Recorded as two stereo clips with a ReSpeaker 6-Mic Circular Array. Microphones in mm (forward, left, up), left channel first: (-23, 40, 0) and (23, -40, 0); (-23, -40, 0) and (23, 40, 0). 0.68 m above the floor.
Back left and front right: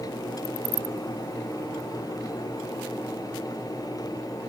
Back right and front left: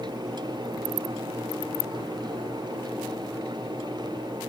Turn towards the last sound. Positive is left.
No sound to turn to.